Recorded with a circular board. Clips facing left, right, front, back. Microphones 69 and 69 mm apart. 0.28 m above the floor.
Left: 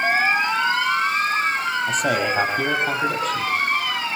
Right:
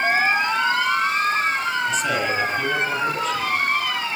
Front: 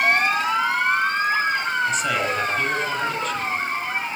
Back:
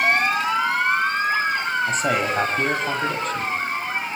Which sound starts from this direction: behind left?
A man speaking, at 1.9 s.